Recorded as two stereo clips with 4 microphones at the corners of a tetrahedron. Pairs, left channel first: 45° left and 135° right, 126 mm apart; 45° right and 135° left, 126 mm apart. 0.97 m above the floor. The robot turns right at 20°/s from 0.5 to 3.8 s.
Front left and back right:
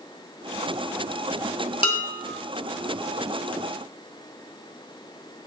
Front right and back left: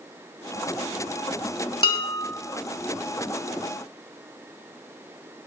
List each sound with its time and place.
1.8 s dishes clattering: straight ahead, 2.0 m; by 2.3 s 10° left, 2.0 m